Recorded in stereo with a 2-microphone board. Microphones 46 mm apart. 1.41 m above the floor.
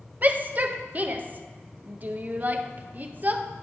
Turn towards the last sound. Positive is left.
turn(degrees=-40)  # may be behind; listen again after turning